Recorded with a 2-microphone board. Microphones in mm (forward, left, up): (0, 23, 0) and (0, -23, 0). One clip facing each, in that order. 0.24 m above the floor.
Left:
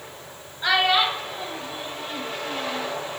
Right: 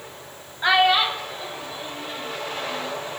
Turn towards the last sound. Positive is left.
turn(degrees=55)  # may be behind; listen again after turning